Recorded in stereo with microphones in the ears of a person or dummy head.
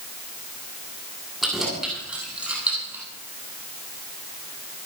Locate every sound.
1.4 s keys jangling: centre (ahead or behind), 9 m; by 3.0 s 15° right (ahead or behind), 8 m